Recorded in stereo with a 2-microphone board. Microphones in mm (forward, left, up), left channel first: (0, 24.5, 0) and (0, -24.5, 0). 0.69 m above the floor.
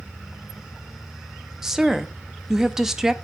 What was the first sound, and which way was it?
A woman speaking, 10° right (ahead or behind).